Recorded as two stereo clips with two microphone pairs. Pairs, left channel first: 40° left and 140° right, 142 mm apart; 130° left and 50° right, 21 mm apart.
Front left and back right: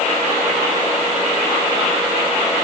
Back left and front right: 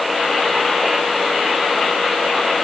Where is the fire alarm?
No fire alarm in this recording.